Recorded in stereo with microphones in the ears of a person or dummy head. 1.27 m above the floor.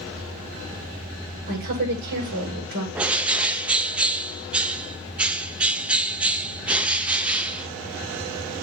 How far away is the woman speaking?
About 6.5 m.